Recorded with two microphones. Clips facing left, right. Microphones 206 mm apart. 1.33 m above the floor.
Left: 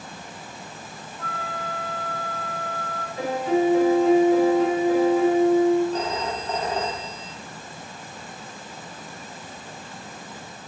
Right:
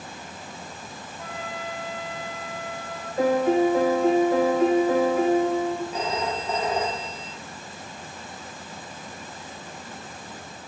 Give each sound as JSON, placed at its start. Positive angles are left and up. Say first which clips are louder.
{"t": 1.2, "sound": "a flute", "louder": "left 1 dB", "side_deg": -20, "distance_m": 0.7}
{"t": 3.2, "sound": "a piano", "louder": "right 2 dB", "side_deg": -55, "distance_m": 1.0}
{"t": 5.9, "sound": "a phone ringing", "louder": "left 1 dB", "side_deg": -10, "distance_m": 1.7}